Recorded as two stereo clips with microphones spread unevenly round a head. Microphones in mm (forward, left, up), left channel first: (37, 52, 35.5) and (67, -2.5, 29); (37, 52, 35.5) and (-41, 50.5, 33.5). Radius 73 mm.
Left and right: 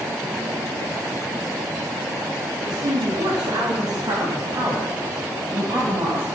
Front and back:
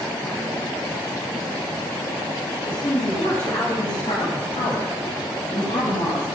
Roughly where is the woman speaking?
Ahead right.